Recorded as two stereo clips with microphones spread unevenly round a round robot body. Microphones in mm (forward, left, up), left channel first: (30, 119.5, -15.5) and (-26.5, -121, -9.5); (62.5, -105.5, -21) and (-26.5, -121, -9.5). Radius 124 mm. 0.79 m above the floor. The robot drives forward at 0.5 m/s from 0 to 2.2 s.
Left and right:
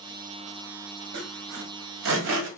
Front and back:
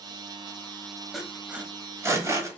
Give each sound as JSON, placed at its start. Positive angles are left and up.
{"t": 1.1, "sound": "sawing", "azimuth_deg": -70, "distance_m": 1.0}